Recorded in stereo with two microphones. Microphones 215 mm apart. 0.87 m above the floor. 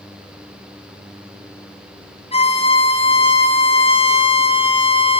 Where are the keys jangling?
I don't hear keys jangling.